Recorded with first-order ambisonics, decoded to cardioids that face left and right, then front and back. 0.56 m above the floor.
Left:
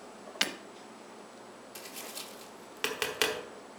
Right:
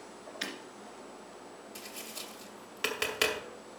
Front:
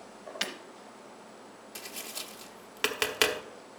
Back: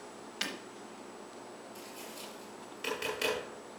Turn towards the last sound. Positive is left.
turn(degrees=15)